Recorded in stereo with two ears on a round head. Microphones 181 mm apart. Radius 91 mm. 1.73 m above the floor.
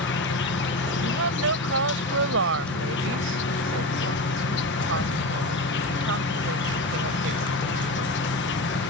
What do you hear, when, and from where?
0.0 s an insect: 60° left (ahead or behind)
1.0 s a woman speaking: 70° right (ahead or behind)